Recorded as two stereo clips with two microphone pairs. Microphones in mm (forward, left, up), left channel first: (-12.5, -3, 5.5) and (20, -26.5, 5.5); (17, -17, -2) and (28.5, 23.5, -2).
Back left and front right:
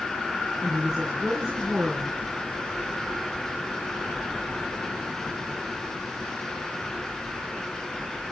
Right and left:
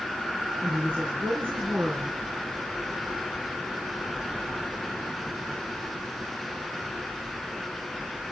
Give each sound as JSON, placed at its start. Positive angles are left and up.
{"t": 0.6, "sound": "a woman speaking", "azimuth_deg": 45, "distance_m": 4.0}